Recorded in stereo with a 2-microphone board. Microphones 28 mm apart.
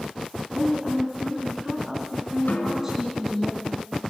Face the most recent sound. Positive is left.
turn(degrees=75)  # may be behind; listen again after turning